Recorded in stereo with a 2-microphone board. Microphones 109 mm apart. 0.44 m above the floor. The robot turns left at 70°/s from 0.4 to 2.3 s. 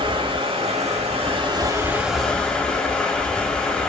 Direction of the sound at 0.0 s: 55° right.